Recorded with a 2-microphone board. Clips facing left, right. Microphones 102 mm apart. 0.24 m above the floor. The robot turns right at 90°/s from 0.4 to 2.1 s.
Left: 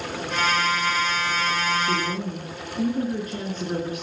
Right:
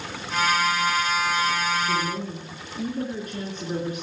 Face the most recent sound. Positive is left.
turn(degrees=40)  # may be behind; listen again after turning